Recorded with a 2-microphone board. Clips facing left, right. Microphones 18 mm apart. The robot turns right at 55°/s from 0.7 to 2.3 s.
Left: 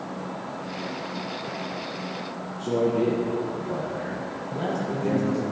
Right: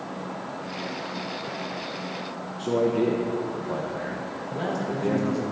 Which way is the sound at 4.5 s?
25° right (ahead or behind).